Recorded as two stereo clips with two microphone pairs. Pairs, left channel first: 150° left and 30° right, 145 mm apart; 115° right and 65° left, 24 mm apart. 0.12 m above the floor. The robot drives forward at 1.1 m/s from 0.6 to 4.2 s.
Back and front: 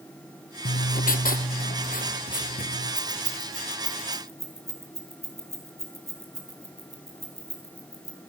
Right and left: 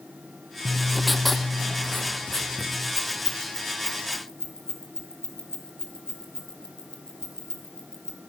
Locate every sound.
0.7 s writing: 135° left, 0.6 m; by 2.9 s 170° left, 3 m
3.0 s keys jangling: 165° right, 1.5 m; by 8.2 s 175° right, 3 m